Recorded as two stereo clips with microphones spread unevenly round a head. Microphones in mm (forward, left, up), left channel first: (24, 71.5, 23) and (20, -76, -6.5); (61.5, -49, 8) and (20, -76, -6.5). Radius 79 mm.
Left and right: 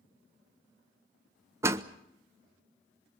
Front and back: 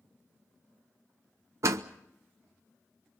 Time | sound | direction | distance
1.6 | a door slam | 170° right | 0.7 m